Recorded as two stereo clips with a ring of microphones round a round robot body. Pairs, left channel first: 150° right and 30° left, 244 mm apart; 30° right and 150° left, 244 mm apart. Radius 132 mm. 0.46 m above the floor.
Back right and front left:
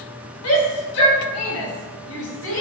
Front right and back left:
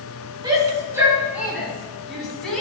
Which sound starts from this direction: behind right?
A shout, at 0.4 s.